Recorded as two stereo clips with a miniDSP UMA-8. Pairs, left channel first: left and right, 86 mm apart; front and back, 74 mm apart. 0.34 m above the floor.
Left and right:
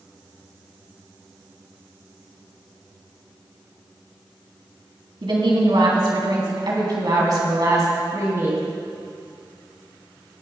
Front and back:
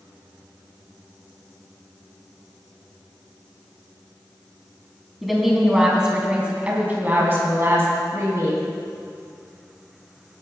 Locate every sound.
5.2 s a woman speaking: 90° right, 2.5 m; by 8.6 s 140° right, 2.5 m